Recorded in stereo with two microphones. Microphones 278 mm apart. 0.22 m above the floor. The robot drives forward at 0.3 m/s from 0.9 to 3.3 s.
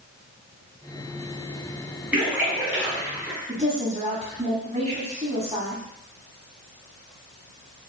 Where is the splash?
5° right (ahead or behind), 1.7 m.